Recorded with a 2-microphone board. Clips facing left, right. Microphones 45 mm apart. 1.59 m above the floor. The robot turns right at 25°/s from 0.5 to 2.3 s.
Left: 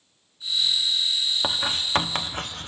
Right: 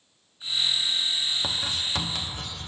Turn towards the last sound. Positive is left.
turn(degrees=50)  # may be behind; listen again after turning